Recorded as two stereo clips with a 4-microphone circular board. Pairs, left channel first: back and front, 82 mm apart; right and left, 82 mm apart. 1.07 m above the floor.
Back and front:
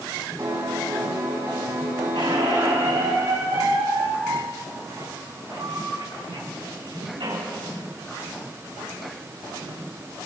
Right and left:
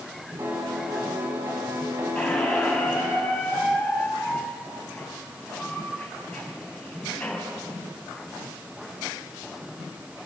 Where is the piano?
45° left, 6 m.